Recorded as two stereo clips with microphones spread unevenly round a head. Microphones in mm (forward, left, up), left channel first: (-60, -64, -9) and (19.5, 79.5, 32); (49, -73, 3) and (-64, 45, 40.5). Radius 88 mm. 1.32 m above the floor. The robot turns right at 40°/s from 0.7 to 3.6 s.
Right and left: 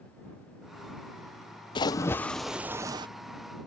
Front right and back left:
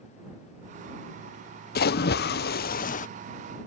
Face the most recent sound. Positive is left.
turn(degrees=15)